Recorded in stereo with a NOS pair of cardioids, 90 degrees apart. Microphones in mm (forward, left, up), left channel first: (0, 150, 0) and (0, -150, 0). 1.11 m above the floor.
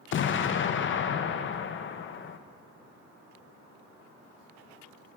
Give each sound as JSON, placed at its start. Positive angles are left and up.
{"t": 0.1, "sound": "an explosion", "azimuth_deg": 40, "distance_m": 0.5}